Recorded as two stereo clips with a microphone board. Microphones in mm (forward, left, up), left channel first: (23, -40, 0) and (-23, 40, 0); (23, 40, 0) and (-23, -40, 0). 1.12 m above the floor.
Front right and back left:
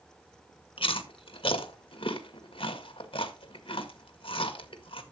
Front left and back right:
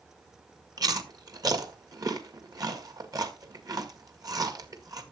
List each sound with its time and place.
0.8 s chewing: 75° right, 1.7 m